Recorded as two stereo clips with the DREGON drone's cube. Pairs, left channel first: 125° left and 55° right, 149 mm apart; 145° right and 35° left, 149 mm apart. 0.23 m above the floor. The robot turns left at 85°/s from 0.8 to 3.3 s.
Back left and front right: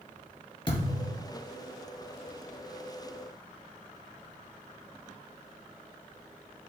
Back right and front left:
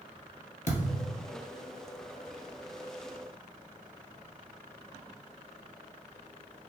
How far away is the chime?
I don't hear a chime.